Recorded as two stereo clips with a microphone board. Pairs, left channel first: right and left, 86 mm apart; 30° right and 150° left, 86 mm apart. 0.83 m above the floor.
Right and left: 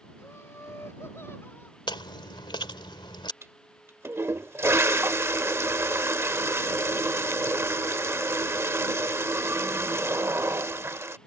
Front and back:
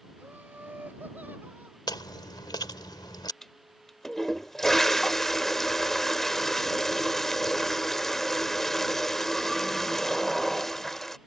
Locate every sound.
0.2 s laughter: 145° right; by 1.8 s 150° right
1.9 s chewing: 65° right
3.4 s a toilet flushing: 55° left